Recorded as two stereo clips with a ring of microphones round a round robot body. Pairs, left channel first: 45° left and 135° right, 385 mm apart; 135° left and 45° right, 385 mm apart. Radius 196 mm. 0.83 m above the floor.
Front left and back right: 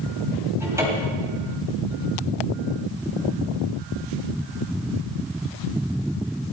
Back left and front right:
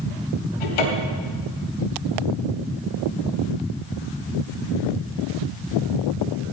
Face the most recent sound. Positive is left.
turn(degrees=140)